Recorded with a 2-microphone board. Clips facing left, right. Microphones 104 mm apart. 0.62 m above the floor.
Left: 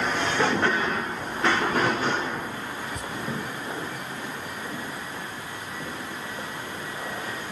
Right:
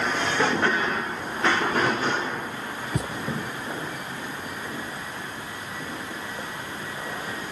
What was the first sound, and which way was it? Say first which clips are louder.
A thud: right 4 dB; 75° right (ahead or behind).